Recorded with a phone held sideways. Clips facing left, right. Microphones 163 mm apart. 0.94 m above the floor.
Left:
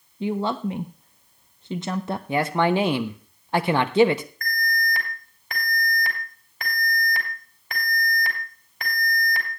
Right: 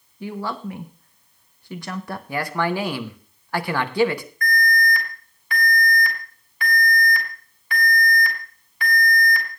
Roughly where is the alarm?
Left.